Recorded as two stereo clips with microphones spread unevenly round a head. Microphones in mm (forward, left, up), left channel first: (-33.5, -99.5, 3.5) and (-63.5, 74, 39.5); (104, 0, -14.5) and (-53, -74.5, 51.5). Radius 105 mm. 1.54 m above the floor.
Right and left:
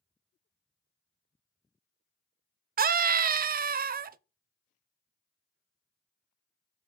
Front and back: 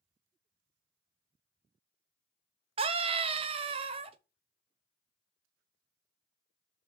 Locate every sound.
2.8 s a scream: 140° left, 0.6 m